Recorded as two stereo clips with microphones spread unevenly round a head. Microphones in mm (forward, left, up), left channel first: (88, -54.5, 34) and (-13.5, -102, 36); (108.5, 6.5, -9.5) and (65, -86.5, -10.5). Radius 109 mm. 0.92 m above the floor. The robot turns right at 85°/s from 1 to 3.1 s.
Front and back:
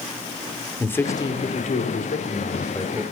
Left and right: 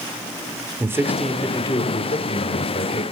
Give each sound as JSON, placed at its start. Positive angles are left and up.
{"t": 0.8, "sound": "a man speaking", "azimuth_deg": -45, "distance_m": 3.0}